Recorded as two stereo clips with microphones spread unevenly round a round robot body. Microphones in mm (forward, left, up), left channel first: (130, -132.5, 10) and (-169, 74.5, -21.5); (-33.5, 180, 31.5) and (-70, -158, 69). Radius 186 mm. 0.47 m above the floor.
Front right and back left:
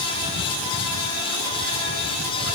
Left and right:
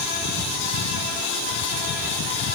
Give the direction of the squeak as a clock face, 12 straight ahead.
I don't hear a squeak.